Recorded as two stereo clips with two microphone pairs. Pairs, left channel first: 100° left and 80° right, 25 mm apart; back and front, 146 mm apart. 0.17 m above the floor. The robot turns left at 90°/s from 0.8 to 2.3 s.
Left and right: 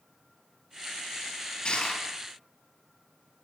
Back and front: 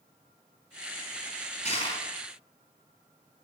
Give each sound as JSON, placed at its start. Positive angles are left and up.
{"t": 1.6, "sound": "crushing", "azimuth_deg": 145, "distance_m": 4.0}